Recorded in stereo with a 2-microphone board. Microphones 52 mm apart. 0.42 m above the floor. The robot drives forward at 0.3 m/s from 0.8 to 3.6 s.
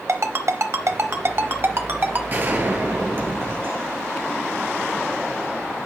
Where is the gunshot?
40° right (ahead or behind), 1.9 m; by 4.4 s 45° right (ahead or behind), 1.6 m.